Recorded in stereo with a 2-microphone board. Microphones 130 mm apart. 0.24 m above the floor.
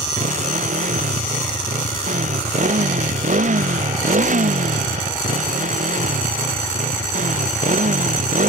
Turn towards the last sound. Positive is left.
turn(degrees=-70)  # may be behind; listen again after turning